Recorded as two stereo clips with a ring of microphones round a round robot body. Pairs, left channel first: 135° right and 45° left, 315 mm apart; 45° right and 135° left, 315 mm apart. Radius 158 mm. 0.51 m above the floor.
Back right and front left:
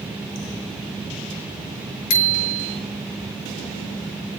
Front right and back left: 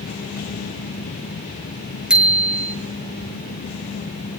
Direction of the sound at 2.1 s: 140° right.